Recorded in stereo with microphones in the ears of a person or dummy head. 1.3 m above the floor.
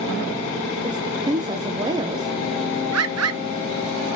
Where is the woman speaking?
20° right (ahead or behind), 0.6 m.